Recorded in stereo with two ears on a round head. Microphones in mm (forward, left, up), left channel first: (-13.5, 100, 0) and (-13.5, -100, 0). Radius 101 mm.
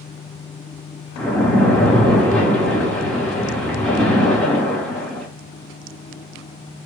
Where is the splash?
5° left (ahead or behind), 1.1 m.